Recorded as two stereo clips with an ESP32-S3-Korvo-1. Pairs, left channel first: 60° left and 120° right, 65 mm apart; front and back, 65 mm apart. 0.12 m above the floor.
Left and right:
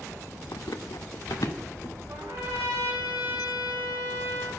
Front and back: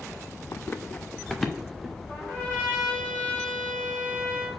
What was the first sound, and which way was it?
Running footsteps, 40° left.